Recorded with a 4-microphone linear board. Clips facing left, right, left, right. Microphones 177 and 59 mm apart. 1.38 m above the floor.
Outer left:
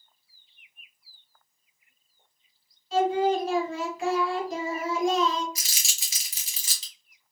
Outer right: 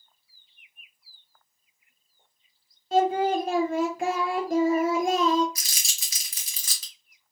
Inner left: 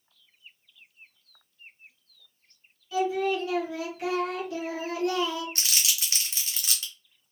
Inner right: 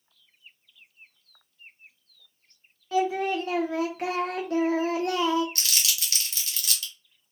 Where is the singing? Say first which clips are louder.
Outer right 1 dB, inner right 1 dB; 55° right (ahead or behind), 0.8 m.